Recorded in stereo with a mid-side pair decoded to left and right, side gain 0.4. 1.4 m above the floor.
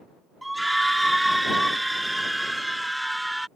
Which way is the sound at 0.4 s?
10° right.